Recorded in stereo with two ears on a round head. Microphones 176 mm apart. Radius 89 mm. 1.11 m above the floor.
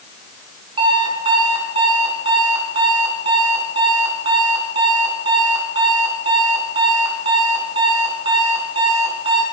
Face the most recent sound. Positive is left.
turn(degrees=-25)  # may be behind; listen again after turning